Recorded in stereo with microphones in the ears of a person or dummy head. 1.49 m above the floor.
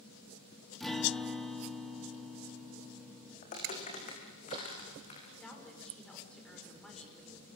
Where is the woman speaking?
Centre (ahead or behind), 5.5 m.